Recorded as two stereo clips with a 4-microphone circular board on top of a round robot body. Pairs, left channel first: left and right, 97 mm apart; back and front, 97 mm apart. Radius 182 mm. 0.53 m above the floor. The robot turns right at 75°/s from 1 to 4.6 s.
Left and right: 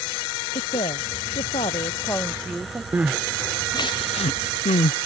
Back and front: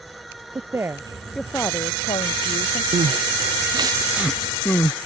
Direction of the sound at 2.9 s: 20° right.